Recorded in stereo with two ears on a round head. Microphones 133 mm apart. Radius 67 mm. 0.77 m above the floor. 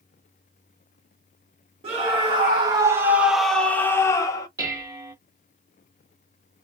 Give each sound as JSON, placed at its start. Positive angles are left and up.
{"t": 1.8, "sound": "a scream", "side_deg": -40, "distance_m": 1.0}
{"t": 4.6, "sound": "dishes clattering", "side_deg": -25, "distance_m": 1.0}